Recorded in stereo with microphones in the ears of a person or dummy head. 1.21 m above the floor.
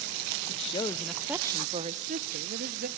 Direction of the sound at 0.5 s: 35° left (ahead or behind).